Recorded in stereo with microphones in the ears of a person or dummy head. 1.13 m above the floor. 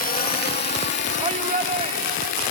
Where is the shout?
30° right (ahead or behind).